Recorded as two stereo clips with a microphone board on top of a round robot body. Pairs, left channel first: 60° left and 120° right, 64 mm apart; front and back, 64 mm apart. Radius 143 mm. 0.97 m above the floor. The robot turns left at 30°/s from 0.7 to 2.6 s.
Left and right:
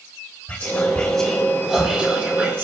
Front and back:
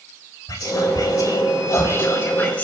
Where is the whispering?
5° right, 3 m; by 2.6 s 65° right, 3 m.